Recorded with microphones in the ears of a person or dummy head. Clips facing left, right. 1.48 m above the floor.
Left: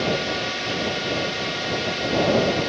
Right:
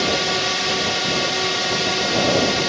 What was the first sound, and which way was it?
A drone, 55° right (ahead or behind).